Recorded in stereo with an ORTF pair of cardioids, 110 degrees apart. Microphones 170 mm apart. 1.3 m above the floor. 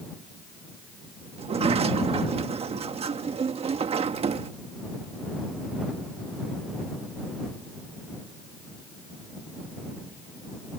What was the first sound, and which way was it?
A sliding door, 35° right.